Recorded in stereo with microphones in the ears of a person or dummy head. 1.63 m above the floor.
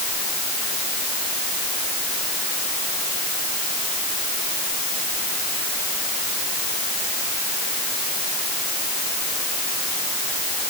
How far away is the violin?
I don't hear a violin.